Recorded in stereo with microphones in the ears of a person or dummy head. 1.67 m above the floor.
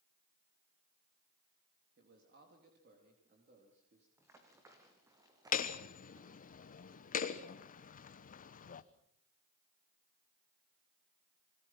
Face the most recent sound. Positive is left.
turn(degrees=50)  # may be behind; listen again after turning